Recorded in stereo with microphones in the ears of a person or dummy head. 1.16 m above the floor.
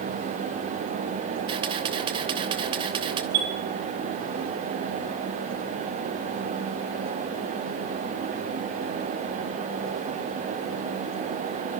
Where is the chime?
80° right, 6.5 m.